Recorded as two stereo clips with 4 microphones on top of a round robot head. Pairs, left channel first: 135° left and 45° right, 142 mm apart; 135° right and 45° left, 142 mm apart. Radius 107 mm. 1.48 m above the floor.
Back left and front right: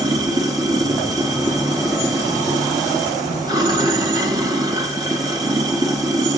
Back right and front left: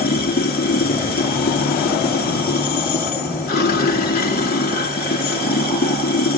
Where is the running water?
110° right, 1.6 m.